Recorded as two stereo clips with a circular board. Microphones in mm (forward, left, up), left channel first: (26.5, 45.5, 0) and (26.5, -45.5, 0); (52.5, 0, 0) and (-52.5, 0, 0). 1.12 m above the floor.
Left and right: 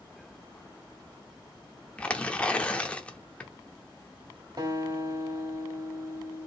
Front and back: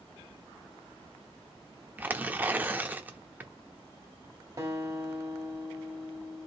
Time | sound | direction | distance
2.0 | tearing paper | 140° left | 0.7 m
4.6 | a guitar | 125° right | 1.9 m